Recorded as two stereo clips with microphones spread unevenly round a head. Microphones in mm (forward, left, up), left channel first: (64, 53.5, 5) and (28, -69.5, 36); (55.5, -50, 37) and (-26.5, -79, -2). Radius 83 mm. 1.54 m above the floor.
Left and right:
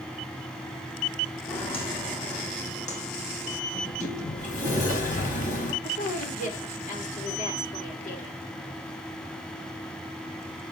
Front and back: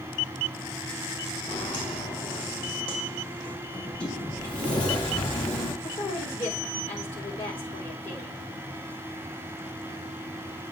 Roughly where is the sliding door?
Ahead left.